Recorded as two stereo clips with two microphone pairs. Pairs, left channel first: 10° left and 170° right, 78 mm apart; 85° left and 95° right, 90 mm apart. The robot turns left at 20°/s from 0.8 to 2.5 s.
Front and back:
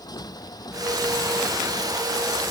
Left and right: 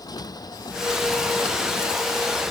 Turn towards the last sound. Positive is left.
turn(degrees=5)